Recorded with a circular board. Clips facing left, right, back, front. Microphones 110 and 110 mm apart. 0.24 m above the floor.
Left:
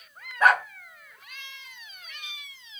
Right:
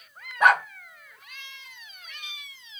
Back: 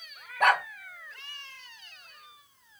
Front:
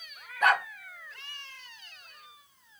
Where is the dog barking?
165° right, 2 m.